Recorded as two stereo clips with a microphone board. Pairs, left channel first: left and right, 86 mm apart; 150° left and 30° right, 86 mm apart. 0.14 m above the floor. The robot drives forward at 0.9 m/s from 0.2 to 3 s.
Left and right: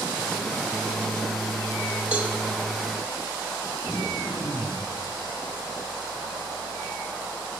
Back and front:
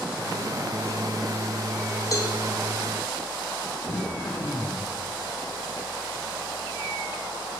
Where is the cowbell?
165° right, 4.5 m.